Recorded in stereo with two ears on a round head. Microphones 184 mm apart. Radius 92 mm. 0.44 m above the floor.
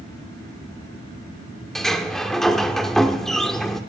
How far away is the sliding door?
About 0.9 m.